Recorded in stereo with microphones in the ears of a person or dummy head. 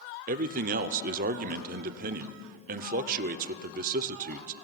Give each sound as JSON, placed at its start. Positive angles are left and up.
{"t": 0.3, "sound": "a man speaking", "side_deg": -45, "distance_m": 0.7}